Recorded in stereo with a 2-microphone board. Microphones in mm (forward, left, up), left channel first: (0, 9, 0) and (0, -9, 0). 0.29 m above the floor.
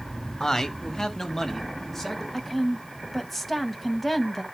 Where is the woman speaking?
15° left (ahead or behind), 1.5 m.